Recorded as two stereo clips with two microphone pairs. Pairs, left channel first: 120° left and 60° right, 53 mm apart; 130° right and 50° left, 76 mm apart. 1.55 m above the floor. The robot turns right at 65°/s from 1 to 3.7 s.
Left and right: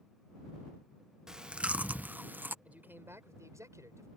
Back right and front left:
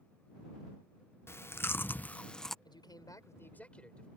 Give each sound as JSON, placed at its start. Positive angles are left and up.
{"t": 1.3, "sound": "chewing", "azimuth_deg": -135}
{"t": 2.6, "sound": "a man speaking", "azimuth_deg": -125}